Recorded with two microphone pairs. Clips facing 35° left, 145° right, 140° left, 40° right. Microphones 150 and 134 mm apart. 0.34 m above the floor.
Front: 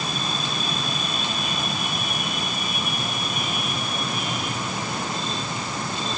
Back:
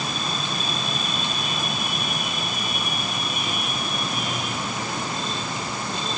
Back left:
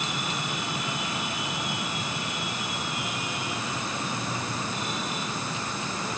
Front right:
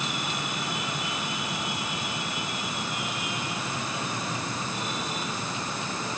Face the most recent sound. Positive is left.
No sound to turn to.